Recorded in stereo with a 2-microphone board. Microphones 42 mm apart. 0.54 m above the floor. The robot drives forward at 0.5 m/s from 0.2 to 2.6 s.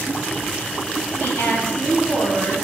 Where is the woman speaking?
60° left (ahead or behind), 4 m; by 2.6 s 70° left (ahead or behind), 4 m.